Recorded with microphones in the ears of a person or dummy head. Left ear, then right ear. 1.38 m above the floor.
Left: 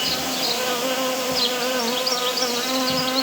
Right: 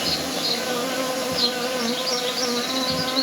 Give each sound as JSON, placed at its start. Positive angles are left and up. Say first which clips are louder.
{"t": 0.0, "sound": "an insect", "louder": "left 1 dB", "side_deg": 40, "distance_m": 0.9}